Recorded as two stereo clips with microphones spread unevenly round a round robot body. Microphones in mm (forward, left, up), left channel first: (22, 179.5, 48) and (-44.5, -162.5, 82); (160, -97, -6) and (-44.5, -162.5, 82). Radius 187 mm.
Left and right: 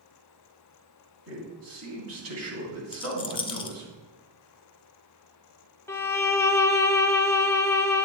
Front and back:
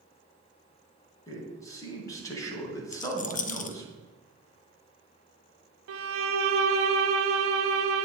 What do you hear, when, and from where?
1.3 s a man speaking: 50° right, 3 m
2.9 s a rattle: 10° left, 0.8 m
5.9 s a violin: 155° left, 0.6 m